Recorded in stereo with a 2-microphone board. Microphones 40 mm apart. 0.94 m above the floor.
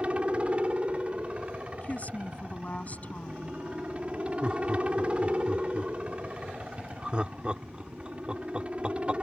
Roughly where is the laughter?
Right.